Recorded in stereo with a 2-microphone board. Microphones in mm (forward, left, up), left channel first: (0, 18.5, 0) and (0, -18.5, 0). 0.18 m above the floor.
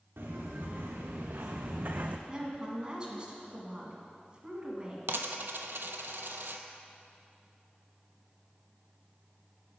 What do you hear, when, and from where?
0.2 s footsteps: 85° right, 1.6 m; by 2.2 s 40° right (ahead or behind), 0.5 m
2.3 s a woman speaking: 25° right (ahead or behind), 1.6 m
5.1 s a dropped coin: 70° right (ahead or behind), 0.5 m